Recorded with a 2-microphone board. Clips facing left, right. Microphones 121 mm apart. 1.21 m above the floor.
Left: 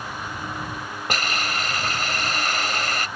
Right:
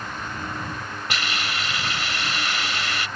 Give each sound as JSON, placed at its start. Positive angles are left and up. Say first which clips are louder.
{"t": 1.1, "sound": "a hiss", "louder": "left 3 dB", "side_deg": 45}